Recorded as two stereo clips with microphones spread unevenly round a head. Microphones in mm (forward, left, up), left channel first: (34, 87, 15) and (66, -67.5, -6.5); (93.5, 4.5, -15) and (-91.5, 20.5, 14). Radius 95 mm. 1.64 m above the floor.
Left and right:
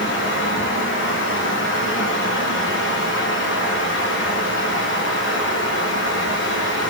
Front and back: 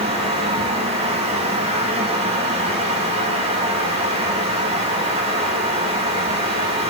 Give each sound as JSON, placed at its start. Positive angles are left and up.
{"t": 0.0, "sound": "a fan", "azimuth_deg": 115, "distance_m": 3.5}